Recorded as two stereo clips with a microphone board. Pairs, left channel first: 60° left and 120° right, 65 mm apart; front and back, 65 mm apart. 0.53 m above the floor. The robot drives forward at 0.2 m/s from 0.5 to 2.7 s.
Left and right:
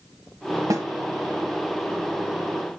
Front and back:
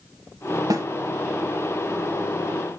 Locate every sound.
0.7 s a snare drum: 155° right, 1.3 m